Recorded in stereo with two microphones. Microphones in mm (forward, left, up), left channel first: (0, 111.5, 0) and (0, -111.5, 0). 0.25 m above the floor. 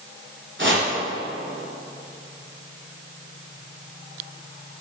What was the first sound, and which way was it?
Chopping, 65° right (ahead or behind).